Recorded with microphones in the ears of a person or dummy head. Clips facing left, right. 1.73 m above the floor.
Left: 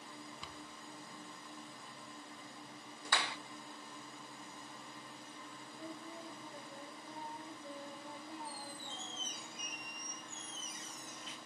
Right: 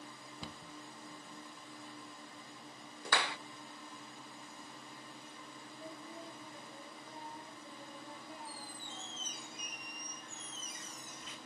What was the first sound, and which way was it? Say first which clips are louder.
A cupboard door: right 2 dB; 30° right (ahead or behind).